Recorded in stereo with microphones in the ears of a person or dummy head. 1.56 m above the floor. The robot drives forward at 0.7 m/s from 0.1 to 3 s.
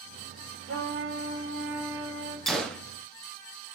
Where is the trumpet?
65° right (ahead or behind), 4.5 m; by 2.4 s 75° right (ahead or behind), 4 m.